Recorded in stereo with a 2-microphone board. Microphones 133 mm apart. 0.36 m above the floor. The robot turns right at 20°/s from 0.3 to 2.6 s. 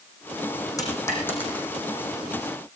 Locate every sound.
0.8 s a dropped coin: 25° left (ahead or behind), 5.5 m; by 1.7 s 10° left (ahead or behind), 5.5 m